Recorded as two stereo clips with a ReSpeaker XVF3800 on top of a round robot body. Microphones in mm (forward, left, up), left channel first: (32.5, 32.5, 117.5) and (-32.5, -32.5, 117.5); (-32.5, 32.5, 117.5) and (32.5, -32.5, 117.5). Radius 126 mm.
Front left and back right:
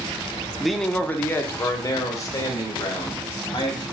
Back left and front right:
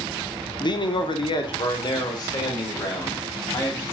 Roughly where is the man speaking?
Behind left.